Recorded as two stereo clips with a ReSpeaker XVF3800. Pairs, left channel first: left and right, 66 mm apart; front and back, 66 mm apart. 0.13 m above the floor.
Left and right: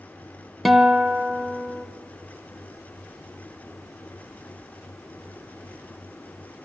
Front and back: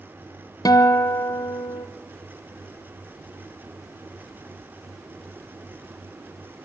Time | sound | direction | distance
0.7 | a guitar | straight ahead | 1.6 m